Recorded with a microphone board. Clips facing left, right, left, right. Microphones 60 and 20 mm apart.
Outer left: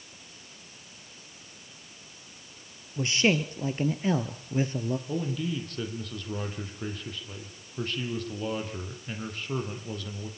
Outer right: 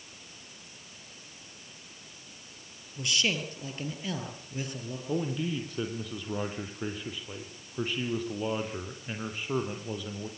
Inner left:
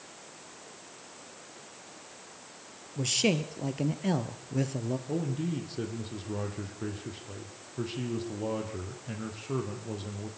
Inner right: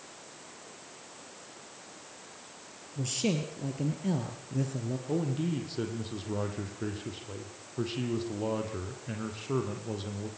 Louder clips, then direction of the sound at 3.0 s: Outer left 5 dB, inner left 4 dB; 30° left (ahead or behind).